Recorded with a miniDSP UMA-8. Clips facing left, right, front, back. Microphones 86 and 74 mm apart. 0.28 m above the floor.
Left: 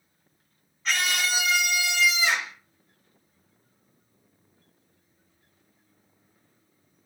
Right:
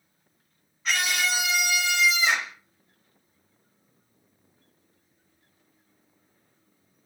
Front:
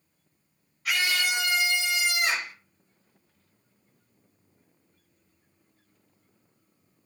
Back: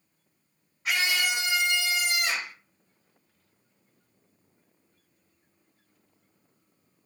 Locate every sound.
0.8 s a scream: 175° right, 1.3 m; by 2.5 s 10° right, 1.5 m